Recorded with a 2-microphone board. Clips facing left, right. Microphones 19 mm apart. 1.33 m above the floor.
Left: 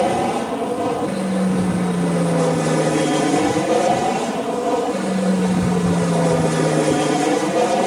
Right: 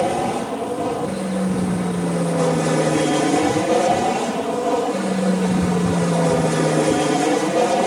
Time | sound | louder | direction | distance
0.0 | an aircraft | left 2 dB | 15° left (ahead or behind) | ?